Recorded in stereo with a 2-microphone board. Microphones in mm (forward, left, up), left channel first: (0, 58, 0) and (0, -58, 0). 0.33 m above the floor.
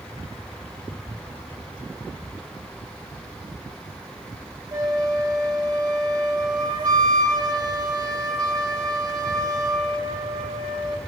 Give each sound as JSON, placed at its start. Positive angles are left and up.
{"t": 4.7, "sound": "a flute", "side_deg": -40, "distance_m": 0.9}